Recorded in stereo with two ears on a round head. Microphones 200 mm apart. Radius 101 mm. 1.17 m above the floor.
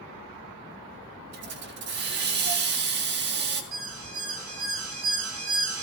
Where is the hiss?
50° right (ahead or behind), 2.5 m.